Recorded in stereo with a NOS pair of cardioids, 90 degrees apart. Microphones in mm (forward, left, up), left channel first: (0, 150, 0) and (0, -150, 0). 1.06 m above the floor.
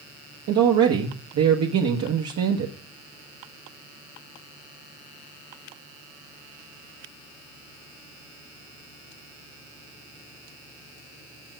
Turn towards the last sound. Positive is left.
turn(degrees=-65)